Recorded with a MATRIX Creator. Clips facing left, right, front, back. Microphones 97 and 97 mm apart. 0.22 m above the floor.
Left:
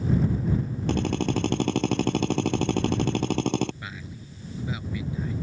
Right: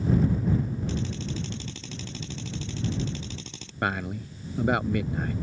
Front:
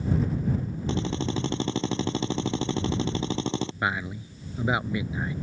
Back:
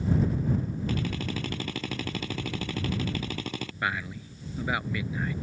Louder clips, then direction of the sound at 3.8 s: Right 11 dB, front 3 dB; 70° right.